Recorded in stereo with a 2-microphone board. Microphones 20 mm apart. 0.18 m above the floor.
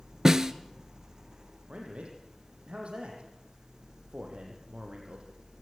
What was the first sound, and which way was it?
A snare drum, 25° right (ahead or behind).